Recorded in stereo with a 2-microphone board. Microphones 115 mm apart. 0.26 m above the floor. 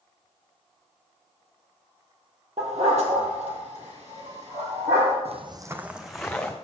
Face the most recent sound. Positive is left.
turn(degrees=10)  # may be behind; listen again after turning